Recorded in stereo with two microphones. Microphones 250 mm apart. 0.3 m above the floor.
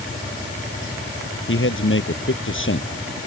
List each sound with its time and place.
1.5 s a man speaking: 55° left (ahead or behind)